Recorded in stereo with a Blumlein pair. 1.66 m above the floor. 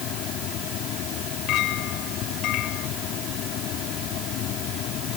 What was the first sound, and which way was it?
A fan, 35° left.